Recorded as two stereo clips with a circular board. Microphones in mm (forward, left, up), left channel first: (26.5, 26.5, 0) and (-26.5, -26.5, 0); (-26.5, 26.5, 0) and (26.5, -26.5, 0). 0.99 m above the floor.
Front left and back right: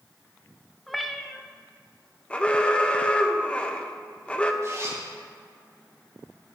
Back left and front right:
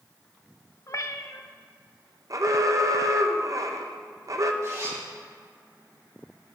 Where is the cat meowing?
135° left, 0.7 m.